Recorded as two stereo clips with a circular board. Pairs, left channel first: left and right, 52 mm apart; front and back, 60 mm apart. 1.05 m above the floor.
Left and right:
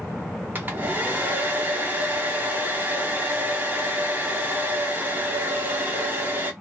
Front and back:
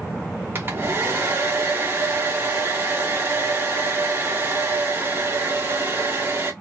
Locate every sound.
0.6 s a hair dryer: 140° right, 1.2 m